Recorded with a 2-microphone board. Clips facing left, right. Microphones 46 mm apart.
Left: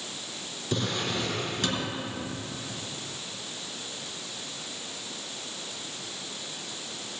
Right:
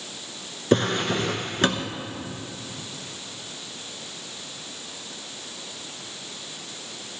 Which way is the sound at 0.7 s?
55° right (ahead or behind).